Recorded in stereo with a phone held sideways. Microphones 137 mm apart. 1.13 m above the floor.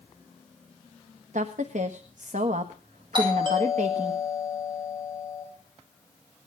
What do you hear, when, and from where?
1.3 s a woman speaking: 70° right (ahead or behind), 1.3 m
3.1 s a doorbell: 35° right (ahead or behind), 9 m